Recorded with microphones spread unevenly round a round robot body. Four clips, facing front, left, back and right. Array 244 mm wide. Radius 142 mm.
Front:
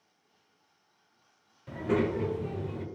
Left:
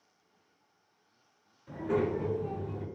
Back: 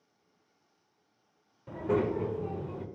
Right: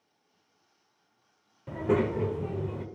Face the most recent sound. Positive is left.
turn(degrees=-85)